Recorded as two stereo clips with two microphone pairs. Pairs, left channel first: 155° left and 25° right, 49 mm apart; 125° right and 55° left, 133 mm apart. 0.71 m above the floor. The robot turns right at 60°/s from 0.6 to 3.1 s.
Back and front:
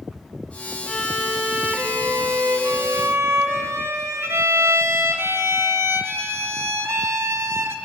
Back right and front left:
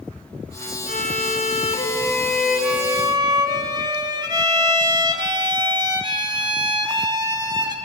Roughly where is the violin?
Behind right.